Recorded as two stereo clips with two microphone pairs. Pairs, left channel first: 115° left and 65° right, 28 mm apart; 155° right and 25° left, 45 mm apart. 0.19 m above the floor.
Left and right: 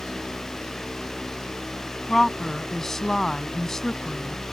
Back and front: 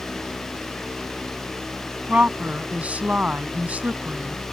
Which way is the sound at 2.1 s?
50° left.